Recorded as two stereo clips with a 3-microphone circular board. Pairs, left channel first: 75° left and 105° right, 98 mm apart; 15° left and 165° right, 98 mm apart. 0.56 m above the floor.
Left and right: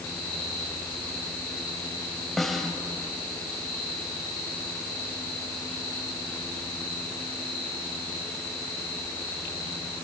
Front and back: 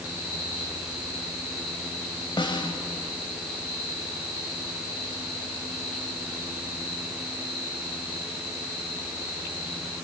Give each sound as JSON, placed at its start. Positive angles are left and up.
{"t": 2.4, "sound": "a snare drum", "azimuth_deg": -10, "distance_m": 2.5}